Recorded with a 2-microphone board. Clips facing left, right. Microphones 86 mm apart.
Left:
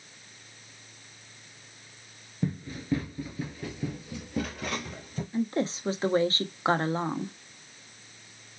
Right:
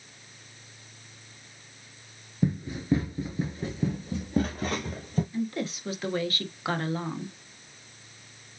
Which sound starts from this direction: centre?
Running footsteps, at 2.4 s.